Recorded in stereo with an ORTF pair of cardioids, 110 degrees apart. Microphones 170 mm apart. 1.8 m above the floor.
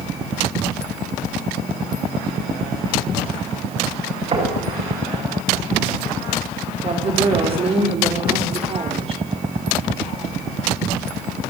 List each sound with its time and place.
4.3 s knocking: 40° right, 8.5 m
6.8 s a woman speaking: 35° right, 5.5 m